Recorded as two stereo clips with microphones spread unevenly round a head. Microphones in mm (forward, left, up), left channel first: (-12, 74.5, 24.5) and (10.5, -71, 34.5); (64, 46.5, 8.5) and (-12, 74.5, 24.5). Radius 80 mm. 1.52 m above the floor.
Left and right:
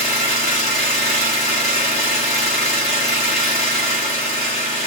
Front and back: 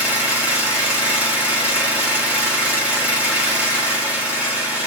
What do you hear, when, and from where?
0.0 s an engine running: 120° left, 1.4 m